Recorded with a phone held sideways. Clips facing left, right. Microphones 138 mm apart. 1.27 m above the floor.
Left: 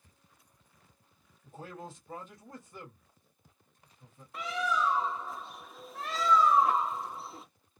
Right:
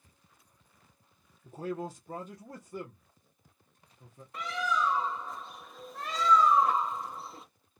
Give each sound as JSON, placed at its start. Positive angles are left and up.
{"t": 1.4, "sound": "a man speaking", "side_deg": -40, "distance_m": 1.0}
{"t": 4.3, "sound": "a bird", "side_deg": 0, "distance_m": 0.6}